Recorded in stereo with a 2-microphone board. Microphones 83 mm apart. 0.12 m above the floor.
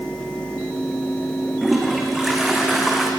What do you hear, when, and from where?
1.6 s a toilet flushing: centre (ahead or behind), 3.5 m